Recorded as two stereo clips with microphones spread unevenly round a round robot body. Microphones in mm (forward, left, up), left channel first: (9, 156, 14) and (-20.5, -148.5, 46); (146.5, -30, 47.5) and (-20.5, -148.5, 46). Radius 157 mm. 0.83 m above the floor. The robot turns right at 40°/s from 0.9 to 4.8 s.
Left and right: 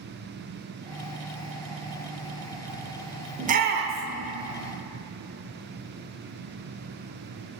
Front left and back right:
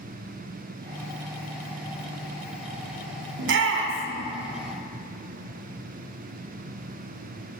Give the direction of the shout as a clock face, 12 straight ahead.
6 o'clock.